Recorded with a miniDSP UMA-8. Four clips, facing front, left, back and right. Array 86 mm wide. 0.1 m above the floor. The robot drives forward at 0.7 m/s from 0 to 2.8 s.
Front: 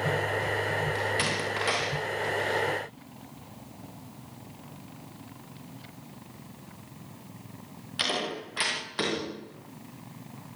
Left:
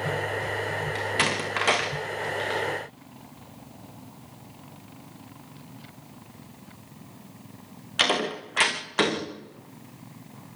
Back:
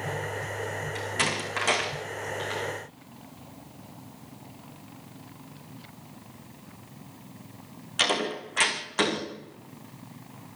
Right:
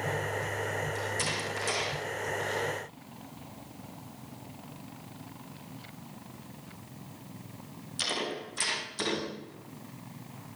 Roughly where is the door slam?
Left.